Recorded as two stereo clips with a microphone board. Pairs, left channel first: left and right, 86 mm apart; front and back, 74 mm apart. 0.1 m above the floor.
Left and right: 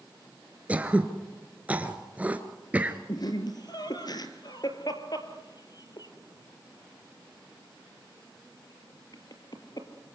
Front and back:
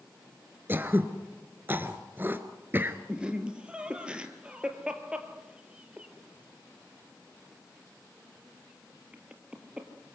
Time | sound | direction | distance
0.7 | throat clearing | 145° right | 1.4 m
3.1 | laughter | 105° left | 2.5 m